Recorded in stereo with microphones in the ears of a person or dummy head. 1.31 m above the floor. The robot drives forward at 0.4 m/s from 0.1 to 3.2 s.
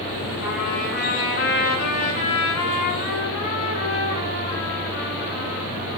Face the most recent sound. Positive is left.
turn(degrees=50)  # may be behind; listen again after turning